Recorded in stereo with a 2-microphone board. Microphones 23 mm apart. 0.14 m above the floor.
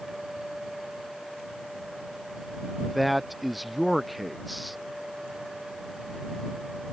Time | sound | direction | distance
2.8 | a man speaking | centre (ahead or behind) | ?